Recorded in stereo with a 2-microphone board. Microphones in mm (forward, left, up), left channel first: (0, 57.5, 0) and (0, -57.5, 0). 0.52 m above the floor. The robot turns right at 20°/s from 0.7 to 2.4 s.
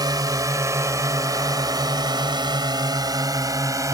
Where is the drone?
35° right (ahead or behind); by 3.9 s 25° right (ahead or behind).